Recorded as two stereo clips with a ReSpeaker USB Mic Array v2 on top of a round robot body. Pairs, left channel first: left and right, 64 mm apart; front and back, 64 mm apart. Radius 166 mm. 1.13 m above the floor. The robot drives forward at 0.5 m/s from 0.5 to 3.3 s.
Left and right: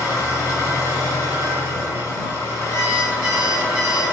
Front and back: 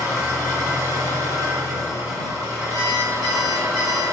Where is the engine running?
135° left, 6 m; by 4.1 s 145° left, 7.5 m.